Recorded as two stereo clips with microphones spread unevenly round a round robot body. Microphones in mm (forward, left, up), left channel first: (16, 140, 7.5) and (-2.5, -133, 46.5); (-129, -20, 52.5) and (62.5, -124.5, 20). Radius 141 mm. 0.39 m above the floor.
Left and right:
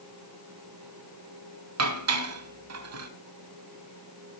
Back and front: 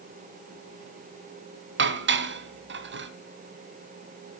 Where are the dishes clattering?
55° right, 2 m.